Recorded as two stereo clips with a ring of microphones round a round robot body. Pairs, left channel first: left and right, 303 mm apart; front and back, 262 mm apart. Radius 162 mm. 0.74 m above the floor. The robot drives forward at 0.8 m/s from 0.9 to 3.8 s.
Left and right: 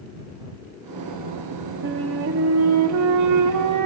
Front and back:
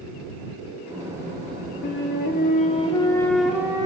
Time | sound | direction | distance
1.8 | a flute | 40° right | 1.8 m